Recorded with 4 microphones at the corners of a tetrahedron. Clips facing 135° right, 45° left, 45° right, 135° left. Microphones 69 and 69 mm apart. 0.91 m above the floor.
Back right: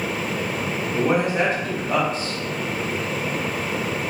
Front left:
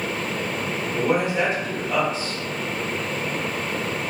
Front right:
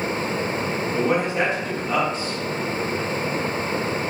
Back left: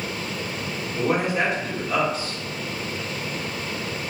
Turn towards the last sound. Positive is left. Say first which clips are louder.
# back right 1 dB, even
turn(degrees=-95)